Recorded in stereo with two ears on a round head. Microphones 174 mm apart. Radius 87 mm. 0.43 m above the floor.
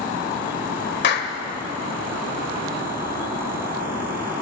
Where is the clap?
60° left (ahead or behind), 1.4 m.